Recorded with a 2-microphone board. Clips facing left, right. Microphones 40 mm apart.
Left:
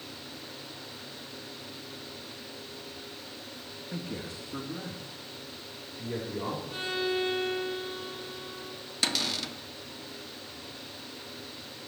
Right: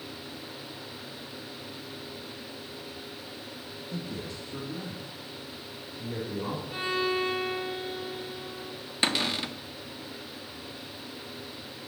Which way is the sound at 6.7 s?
10° right (ahead or behind).